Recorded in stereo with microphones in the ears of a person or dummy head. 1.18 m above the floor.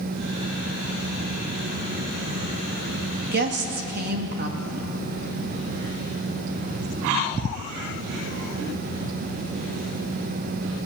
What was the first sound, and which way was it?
A woman speaking, 50° right (ahead or behind).